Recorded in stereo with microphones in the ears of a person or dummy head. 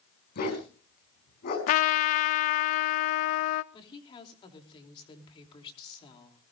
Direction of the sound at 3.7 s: 30° left (ahead or behind).